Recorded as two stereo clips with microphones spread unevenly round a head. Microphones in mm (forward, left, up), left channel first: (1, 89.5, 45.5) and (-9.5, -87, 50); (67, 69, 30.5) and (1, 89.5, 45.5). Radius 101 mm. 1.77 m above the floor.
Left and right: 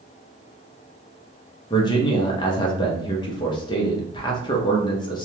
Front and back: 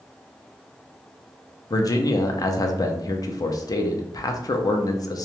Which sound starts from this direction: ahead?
A man speaking, at 1.7 s.